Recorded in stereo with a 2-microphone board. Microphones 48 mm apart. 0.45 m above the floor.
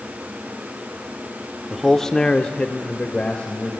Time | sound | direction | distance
1.7 | a man speaking | centre (ahead or behind) | 0.8 m